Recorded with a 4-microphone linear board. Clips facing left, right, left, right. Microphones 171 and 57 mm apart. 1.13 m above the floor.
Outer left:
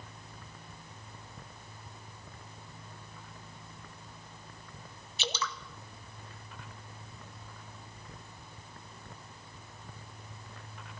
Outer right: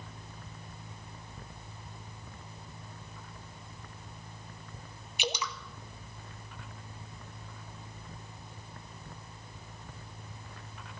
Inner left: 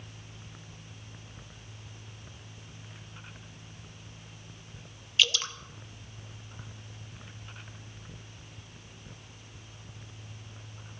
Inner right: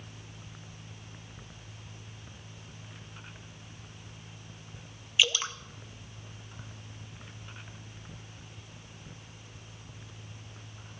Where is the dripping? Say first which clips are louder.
Outer right 2 dB, even; 15° right (ahead or behind), 0.9 m.